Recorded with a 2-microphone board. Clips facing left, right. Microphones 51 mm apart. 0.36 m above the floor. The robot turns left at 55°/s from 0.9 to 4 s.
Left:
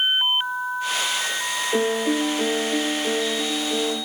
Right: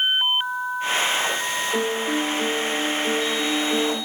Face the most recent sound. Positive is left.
turn(degrees=-35)